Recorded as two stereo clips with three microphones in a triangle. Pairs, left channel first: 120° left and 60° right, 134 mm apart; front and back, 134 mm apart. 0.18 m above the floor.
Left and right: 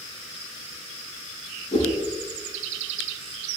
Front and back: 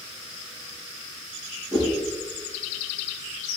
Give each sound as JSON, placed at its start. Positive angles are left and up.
{"t": 1.7, "sound": "a whoosh", "azimuth_deg": 125, "distance_m": 5.5}